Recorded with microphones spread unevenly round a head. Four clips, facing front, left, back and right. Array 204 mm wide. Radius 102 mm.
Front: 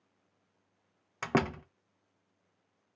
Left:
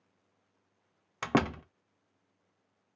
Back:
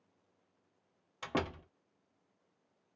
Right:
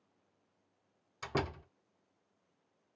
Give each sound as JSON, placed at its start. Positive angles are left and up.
{"t": 1.2, "sound": "a door slam", "azimuth_deg": 55, "distance_m": 0.7}